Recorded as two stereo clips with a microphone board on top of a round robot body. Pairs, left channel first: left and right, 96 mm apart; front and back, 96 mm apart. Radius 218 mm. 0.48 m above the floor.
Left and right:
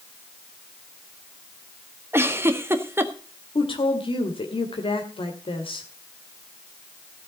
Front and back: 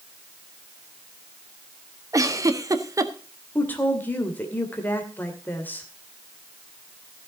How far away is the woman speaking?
About 2.5 m.